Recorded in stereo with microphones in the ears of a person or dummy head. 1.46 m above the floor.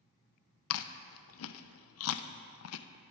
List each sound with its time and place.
0.7 s chewing: 75° left (ahead or behind), 0.8 m